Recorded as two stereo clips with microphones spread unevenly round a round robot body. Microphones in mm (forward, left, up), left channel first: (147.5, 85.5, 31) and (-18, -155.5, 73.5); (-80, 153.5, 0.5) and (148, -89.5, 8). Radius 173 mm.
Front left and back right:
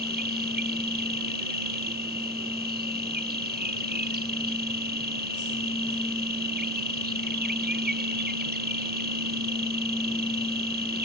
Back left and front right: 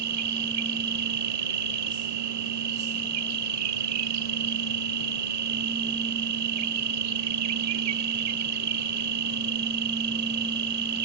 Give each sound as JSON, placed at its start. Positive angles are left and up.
{"t": 0.0, "sound": "an insect", "azimuth_deg": -70}